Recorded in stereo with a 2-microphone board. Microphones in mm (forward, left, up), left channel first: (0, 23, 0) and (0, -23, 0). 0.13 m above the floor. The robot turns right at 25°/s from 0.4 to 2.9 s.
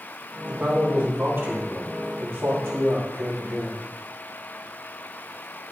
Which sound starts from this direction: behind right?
A man speaking, at 0.4 s.